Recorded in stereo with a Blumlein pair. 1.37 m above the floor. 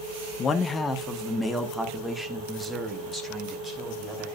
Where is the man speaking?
25° left, 1.0 m; by 4.3 s 10° right, 4 m.